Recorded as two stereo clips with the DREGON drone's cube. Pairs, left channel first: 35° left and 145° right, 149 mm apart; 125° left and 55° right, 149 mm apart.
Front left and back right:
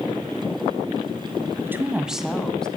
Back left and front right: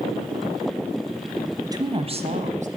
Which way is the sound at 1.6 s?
90° right.